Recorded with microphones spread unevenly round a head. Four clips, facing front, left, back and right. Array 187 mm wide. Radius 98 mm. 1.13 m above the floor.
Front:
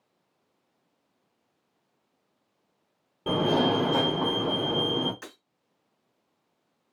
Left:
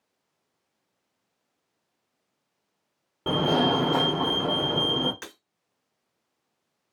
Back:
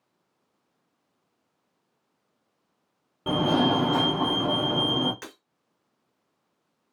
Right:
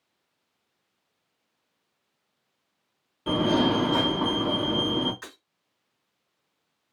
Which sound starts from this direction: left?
A fire alarm, at 3.3 s.